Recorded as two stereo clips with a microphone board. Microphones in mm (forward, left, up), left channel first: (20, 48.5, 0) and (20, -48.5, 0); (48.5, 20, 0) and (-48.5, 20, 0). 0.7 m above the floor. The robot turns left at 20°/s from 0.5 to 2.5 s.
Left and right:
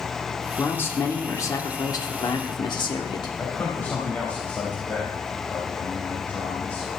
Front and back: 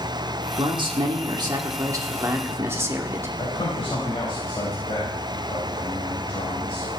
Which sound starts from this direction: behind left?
A man speaking, at 0.6 s.